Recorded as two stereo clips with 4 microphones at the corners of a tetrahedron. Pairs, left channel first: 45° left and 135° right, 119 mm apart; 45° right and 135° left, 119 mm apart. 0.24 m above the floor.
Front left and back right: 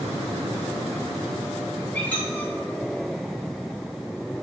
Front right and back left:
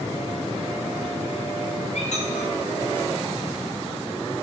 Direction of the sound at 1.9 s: 35° right.